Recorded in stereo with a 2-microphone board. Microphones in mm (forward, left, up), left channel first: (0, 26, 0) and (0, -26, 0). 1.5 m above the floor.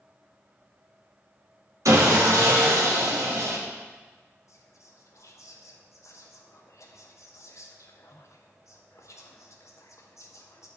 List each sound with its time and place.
1.9 s sawing: 85° right, 1.8 m
4.5 s whispering: 65° left (ahead or behind), 1.3 m